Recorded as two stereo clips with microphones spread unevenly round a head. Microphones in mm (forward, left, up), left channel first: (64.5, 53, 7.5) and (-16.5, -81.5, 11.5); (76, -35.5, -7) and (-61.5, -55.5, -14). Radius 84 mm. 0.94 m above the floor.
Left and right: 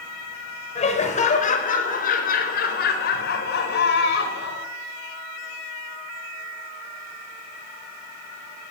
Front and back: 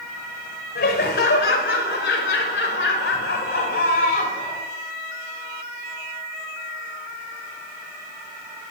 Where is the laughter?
15° left, 5 m; by 4.6 s 60° left, 5.5 m.